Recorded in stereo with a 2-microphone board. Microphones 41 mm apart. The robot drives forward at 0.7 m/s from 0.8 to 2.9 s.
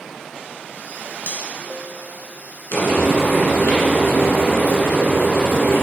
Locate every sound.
1.3 s cutlery clinking: 60° left (ahead or behind), 1.1 m; by 1.4 s 55° left (ahead or behind), 1.2 m
2.7 s frying: 65° left (ahead or behind), 2.0 m; by 5.8 s 70° left (ahead or behind), 1.9 m